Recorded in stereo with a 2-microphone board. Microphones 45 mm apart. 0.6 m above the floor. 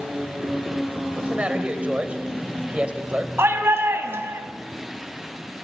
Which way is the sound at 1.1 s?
30° right (ahead or behind).